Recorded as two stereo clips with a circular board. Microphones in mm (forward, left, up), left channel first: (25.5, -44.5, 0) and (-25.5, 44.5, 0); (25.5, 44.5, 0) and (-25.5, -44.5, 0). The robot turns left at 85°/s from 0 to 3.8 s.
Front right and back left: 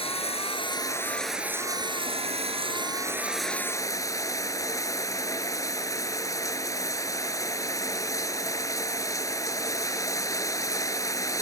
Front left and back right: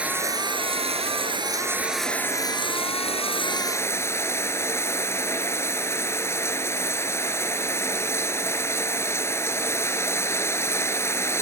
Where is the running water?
40° right; by 11.4 s 5° right.